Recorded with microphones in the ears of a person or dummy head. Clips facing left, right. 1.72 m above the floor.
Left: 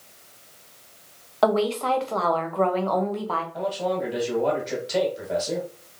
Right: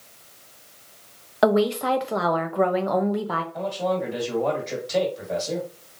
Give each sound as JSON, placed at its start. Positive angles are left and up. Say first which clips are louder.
{"t": 1.4, "sound": "a woman speaking", "louder": "right 2 dB", "side_deg": -15, "distance_m": 0.7}
{"t": 3.5, "sound": "a man speaking", "louder": "right 1 dB", "side_deg": 5, "distance_m": 2.0}